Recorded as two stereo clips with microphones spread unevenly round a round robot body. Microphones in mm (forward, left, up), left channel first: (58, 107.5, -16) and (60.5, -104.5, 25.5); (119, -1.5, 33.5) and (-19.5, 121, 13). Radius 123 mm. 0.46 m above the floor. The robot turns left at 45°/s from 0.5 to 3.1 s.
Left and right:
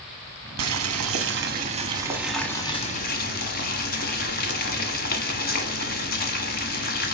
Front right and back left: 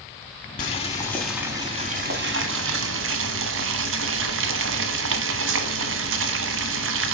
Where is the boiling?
100° right, 1.1 m; by 7.2 s 145° left, 1.1 m.